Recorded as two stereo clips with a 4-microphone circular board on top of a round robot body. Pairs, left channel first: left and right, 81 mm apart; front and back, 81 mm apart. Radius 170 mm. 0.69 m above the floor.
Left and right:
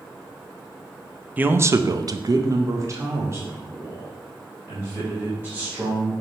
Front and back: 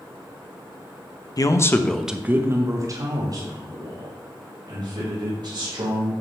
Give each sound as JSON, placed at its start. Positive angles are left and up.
{"t": 1.4, "sound": "a man speaking", "azimuth_deg": -25, "distance_m": 1.0}